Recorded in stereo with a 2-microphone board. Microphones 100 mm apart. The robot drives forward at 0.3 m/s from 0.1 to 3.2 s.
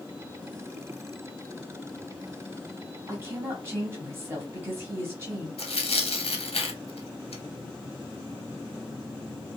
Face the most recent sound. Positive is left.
turn(degrees=85)